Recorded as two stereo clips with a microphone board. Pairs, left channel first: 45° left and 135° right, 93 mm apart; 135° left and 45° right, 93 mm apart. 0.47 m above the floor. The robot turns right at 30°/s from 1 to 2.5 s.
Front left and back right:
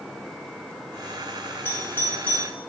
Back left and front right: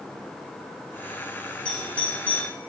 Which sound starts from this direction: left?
A doorbell, at 1.6 s.